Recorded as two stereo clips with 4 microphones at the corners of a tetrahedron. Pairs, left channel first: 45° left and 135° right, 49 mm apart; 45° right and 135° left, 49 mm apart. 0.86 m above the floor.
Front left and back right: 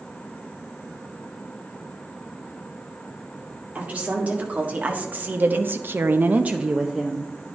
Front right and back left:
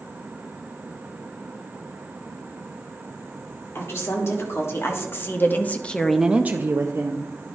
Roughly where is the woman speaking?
Right.